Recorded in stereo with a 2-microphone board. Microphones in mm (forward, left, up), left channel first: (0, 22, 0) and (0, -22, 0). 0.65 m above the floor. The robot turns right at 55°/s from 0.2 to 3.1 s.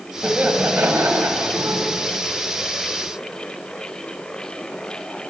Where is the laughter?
150° right, 3.5 m; by 1.9 s 60° right, 3.5 m.